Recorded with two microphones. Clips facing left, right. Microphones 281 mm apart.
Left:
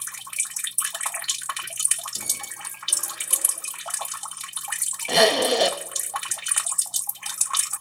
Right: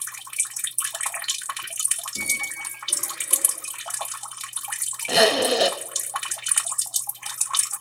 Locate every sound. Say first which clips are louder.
2.1 s a squeak: right 7 dB; 25° right (ahead or behind), 1.5 m
5.1 s a zipper: even; centre (ahead or behind), 0.6 m